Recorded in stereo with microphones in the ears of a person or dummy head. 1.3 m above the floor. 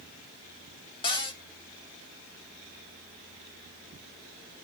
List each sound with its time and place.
1.0 s a cupboard door: 30° left (ahead or behind), 1.2 m